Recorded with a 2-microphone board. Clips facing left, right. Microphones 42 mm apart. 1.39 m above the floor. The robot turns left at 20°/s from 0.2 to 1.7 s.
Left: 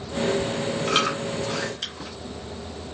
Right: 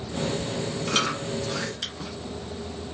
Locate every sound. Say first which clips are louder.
0.9 s chewing: left 2 dB; 20° left (ahead or behind), 0.9 m; by 2.1 s 10° left (ahead or behind), 0.9 m